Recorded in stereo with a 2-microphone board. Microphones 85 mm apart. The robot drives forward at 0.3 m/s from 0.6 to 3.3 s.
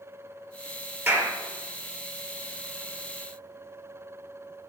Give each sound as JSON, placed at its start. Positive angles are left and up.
{"t": 1.1, "sound": "a clap", "side_deg": -25, "distance_m": 4.0}